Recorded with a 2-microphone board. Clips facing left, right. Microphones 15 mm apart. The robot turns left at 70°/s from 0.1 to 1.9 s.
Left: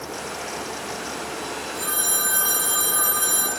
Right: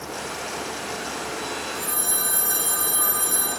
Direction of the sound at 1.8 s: 40° left (ahead or behind).